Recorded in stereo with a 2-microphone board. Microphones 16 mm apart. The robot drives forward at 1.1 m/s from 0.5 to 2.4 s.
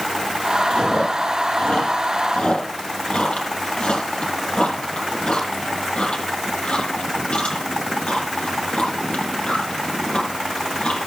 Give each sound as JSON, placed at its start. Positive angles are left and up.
{"t": 0.7, "sound": "chewing", "side_deg": 85, "distance_m": 8.0}